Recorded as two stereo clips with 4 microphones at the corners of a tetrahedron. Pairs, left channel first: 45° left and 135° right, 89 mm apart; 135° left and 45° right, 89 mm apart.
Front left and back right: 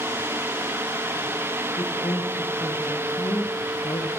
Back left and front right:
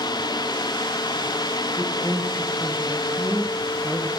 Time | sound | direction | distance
1.8 | a woman speaking | 45° left | 3.5 m